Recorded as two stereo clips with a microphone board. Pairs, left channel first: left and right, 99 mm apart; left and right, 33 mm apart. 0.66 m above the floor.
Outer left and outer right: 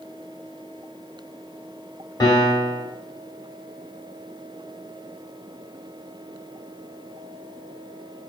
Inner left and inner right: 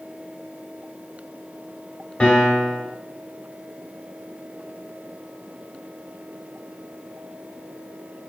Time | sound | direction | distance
2.2 | a piano | 40° left (ahead or behind) | 0.6 m